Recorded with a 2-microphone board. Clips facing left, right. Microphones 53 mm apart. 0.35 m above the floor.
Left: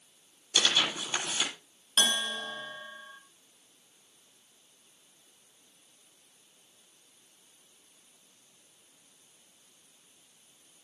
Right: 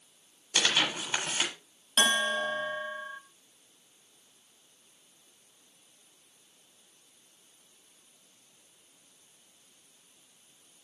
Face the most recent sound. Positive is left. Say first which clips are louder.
# right 4 dB
turn(degrees=-35)  # may be behind; listen again after turning